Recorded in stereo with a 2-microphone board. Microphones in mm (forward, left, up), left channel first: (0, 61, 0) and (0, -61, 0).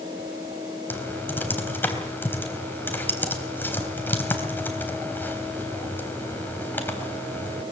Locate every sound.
0.9 s typing on a keyboard: 15° left (ahead or behind), 3.5 m